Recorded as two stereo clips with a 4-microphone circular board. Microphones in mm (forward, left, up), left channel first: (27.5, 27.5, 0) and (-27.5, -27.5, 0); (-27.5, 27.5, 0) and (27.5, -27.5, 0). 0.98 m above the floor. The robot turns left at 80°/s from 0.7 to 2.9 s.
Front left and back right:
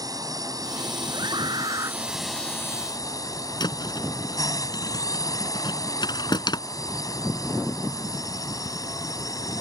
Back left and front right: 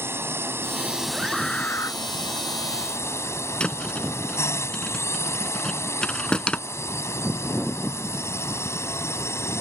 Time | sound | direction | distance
0.0 | a drone | 100° right | ?
1.1 | a scream | 115° right | ?
3.6 | a thud | 60° left | ?